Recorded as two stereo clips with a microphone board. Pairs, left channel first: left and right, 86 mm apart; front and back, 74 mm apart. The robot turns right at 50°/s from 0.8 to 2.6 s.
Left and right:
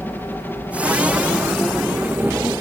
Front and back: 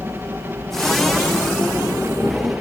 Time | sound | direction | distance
0.0 | a helicopter | 145° left | ?